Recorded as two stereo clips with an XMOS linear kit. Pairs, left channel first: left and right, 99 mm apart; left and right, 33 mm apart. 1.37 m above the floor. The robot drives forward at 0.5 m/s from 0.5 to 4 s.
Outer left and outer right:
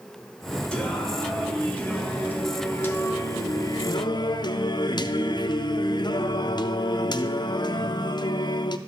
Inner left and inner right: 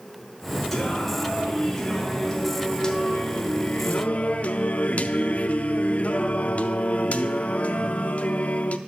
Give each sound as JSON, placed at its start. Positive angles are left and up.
{"t": 0.7, "sound": "singing", "side_deg": 10, "distance_m": 2.0}